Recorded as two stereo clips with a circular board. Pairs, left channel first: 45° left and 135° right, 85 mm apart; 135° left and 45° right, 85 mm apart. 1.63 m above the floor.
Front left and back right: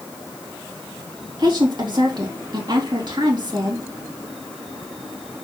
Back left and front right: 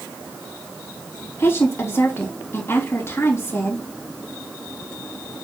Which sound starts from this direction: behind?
A woman speaking, at 1.4 s.